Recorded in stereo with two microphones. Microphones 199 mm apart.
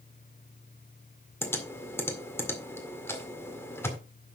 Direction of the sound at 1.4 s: 10° left (ahead or behind).